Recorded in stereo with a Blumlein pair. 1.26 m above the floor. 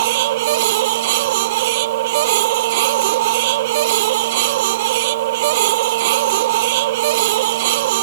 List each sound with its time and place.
0.0 s a machine running: 55° right